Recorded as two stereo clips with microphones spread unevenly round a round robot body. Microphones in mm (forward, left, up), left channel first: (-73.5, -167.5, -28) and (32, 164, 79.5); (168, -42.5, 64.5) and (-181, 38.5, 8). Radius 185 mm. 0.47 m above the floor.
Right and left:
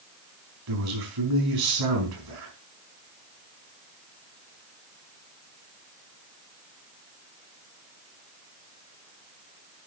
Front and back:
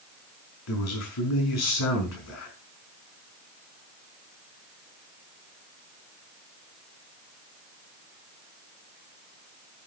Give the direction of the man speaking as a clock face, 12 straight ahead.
11 o'clock.